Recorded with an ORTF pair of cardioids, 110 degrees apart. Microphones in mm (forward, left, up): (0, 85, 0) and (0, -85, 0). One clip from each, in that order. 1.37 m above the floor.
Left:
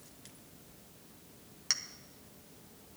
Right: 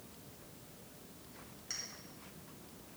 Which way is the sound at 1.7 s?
70° left.